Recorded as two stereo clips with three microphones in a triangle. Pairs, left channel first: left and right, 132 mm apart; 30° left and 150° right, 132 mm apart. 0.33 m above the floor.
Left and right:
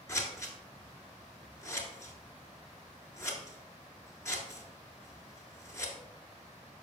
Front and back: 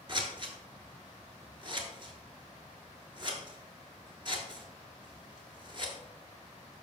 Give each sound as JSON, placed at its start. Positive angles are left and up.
{"t": 0.1, "sound": "scissors", "azimuth_deg": 160, "distance_m": 1.6}